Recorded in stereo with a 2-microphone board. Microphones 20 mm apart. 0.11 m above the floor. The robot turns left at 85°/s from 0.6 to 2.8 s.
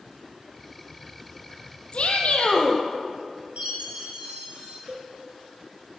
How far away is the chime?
About 4 m.